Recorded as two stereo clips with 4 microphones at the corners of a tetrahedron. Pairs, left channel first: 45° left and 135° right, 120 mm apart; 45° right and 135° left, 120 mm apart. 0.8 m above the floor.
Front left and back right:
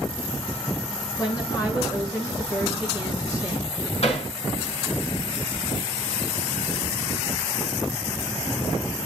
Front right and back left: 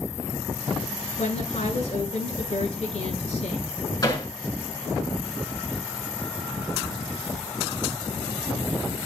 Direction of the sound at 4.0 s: 10° left.